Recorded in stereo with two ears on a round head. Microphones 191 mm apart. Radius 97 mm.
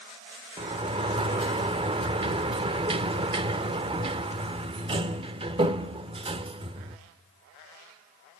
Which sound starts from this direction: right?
A sliding door, at 0.6 s.